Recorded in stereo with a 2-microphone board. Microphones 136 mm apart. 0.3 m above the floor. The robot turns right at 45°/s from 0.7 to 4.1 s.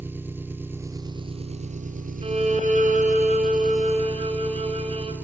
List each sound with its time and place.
0.0 s an engine running: 165° right, 1.7 m; by 5.2 s 10° right, 1.7 m
2.2 s a violin: 130° right, 3.5 m; by 5.1 s 45° right, 3.5 m